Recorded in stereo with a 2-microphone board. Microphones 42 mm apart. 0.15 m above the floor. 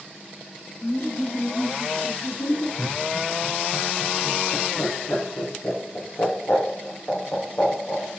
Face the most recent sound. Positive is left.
turn(degrees=70)  # may be behind; listen again after turning